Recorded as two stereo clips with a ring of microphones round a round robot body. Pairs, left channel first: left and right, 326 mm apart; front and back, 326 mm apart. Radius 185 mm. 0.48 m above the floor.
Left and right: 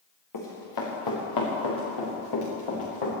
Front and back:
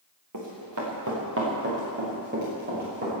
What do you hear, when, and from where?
0.3 s running footsteps: 130° left, 4 m; by 3.1 s 110° left, 6 m